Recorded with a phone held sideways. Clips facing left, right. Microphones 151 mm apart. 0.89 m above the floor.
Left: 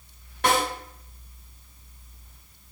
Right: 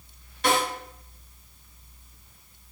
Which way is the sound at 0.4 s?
60° left (ahead or behind).